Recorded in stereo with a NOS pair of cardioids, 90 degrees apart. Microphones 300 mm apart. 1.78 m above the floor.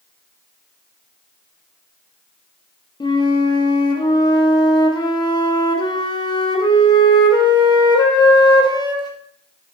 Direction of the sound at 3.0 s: 15° left.